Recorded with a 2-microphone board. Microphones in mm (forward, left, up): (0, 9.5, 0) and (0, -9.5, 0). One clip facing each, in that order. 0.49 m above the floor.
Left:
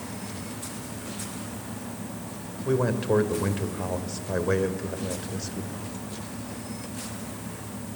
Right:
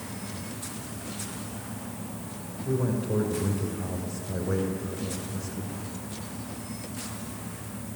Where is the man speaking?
55° left (ahead or behind), 1.9 m.